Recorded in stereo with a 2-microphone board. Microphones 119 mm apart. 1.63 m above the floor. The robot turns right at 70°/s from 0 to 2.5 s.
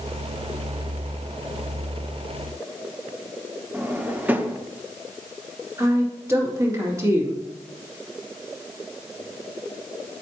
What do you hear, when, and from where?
3.7 s a drawer: 15° right (ahead or behind), 0.7 m
5.8 s a woman speaking: 25° right (ahead or behind), 2.5 m